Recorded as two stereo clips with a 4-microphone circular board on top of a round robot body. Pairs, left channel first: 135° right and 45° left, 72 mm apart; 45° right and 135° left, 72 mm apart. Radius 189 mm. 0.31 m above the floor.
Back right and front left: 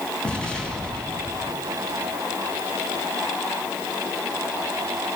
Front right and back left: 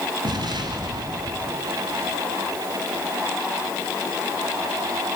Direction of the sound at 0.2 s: 145° left.